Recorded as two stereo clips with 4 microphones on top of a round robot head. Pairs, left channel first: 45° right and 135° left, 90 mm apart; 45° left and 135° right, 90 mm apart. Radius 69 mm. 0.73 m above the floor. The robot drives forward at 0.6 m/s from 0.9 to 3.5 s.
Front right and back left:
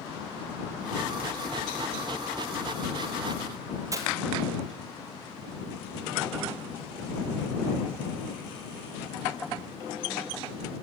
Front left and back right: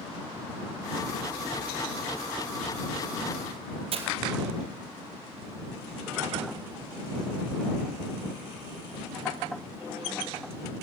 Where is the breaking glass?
165° right, 2.0 m.